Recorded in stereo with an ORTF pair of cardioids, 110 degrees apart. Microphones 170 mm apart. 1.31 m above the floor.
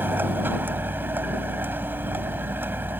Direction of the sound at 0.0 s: 10° right.